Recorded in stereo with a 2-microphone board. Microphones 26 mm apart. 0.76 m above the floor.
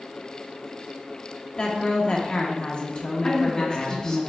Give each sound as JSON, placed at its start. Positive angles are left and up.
{"t": 1.6, "sound": "a woman speaking", "side_deg": 40, "distance_m": 0.8}
{"t": 3.2, "sound": "a man speaking", "side_deg": 30, "distance_m": 0.9}